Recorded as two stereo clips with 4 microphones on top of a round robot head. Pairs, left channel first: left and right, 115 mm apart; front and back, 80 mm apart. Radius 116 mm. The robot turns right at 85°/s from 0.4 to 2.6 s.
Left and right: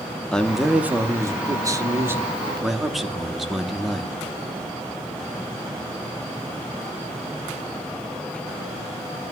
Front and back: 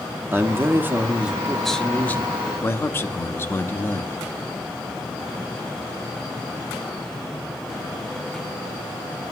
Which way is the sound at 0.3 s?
170° left.